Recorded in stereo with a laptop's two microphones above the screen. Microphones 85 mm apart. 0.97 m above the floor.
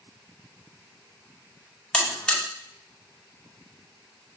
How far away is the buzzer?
About 1.5 m.